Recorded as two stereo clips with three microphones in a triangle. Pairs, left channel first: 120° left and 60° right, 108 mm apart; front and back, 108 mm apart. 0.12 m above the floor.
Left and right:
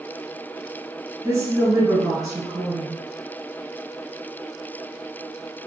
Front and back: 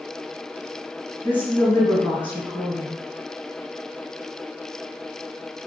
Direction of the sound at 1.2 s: 45° right.